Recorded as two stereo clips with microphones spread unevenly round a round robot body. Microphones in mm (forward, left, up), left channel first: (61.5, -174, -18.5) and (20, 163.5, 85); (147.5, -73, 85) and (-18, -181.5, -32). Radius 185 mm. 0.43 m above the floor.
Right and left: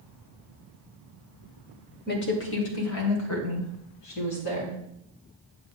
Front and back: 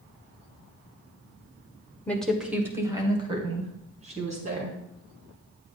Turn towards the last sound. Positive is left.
turn(degrees=-110)